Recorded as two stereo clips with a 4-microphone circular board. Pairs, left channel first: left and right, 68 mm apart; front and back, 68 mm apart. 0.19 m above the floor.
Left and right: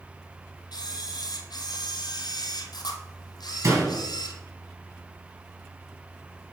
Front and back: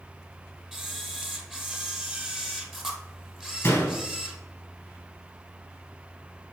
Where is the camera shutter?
95° left, 1.0 m.